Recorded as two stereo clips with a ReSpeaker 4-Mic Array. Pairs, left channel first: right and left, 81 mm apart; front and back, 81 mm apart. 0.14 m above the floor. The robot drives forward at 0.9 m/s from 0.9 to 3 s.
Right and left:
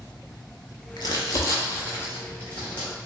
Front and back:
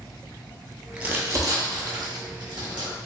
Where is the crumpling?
105° right, 0.6 m; by 2.9 s 165° right, 2.0 m.